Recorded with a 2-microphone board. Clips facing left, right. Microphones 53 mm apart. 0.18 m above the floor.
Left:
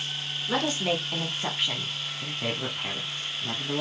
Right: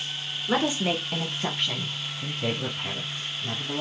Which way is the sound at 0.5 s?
15° right (ahead or behind).